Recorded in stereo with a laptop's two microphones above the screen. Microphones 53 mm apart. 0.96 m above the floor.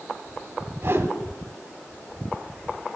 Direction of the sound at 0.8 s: 45° right (ahead or behind).